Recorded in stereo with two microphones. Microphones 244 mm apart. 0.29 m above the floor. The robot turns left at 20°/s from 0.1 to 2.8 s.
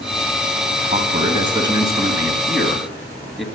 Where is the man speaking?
145° right, 2 m; by 3.5 s straight behind, 2 m.